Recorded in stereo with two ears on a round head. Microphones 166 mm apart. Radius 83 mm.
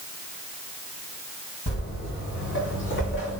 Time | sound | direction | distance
1.7 | footsteps | 45° left (ahead or behind) | 1.9 m